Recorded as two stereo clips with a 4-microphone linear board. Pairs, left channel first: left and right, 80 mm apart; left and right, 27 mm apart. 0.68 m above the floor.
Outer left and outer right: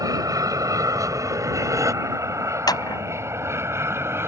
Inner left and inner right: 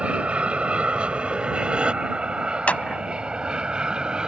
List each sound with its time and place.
0.0 s an aircraft: 45° right (ahead or behind); by 4.3 s 30° right (ahead or behind)
2.7 s a clap: 55° left (ahead or behind)